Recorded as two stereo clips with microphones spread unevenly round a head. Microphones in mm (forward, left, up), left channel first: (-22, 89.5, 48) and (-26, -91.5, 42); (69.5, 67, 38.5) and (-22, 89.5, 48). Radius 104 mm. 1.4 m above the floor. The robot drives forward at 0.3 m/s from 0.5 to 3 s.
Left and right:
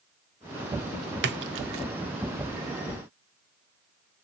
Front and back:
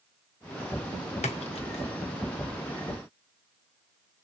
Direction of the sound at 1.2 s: 55° right.